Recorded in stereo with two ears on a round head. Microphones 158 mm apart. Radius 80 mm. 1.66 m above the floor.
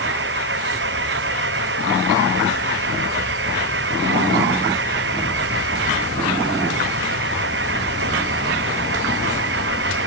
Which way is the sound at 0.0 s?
65° right (ahead or behind).